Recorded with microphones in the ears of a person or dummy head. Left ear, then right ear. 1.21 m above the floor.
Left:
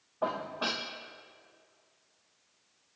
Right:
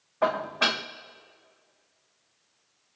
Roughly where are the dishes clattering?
Right.